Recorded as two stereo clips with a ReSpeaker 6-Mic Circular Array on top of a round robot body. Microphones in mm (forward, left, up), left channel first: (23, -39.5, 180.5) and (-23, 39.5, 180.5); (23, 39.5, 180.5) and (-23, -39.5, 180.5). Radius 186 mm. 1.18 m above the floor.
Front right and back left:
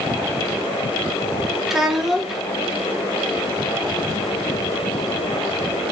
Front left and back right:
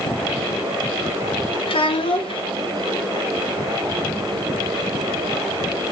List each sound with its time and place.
1.7 s a child speaking: 35° left, 0.7 m